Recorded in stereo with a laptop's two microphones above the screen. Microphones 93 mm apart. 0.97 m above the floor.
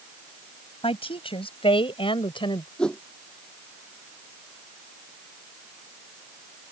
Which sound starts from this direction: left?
A woman speaking, at 0.8 s.